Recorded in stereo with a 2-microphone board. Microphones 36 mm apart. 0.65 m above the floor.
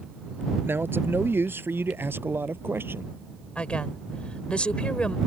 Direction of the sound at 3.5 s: 30° left (ahead or behind).